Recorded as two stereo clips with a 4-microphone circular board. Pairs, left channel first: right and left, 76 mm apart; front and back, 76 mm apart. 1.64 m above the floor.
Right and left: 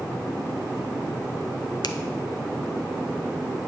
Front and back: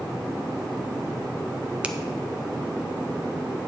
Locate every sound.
1.8 s a finger snap: 105° right, 0.6 m